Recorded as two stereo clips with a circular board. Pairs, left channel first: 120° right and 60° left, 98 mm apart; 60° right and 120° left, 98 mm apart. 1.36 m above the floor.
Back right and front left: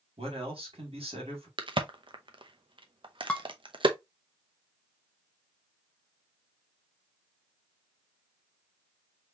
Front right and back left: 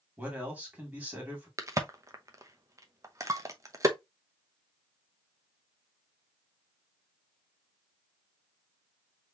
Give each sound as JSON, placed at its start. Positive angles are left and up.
{"t": 0.2, "sound": "a man speaking", "azimuth_deg": 45, "distance_m": 2.5}
{"t": 1.6, "sound": "a crack", "azimuth_deg": 70, "distance_m": 0.7}
{"t": 3.3, "sound": "dishes clattering", "azimuth_deg": 165, "distance_m": 0.7}